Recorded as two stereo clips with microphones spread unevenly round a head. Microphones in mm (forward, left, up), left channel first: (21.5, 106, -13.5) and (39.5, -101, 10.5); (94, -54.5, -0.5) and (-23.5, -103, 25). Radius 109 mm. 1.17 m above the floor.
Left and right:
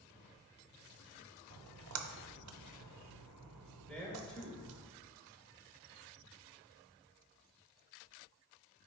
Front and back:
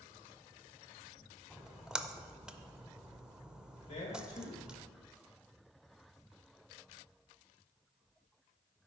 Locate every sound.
1.5 s a splash: 70° right, 0.5 m
3.9 s a man speaking: 10° left, 1.9 m